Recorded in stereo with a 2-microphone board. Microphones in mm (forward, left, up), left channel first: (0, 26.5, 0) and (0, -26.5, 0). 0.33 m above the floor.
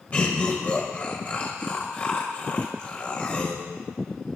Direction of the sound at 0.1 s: 25° left (ahead or behind).